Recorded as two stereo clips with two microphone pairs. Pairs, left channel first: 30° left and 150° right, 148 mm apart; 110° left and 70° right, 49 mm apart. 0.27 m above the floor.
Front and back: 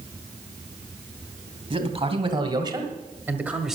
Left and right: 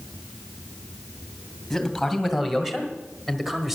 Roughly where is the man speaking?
Behind.